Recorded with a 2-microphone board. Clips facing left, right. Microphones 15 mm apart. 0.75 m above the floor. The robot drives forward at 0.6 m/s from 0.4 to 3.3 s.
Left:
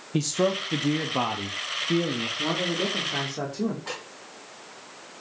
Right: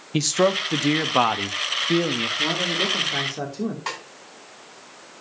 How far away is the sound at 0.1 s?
About 0.9 m.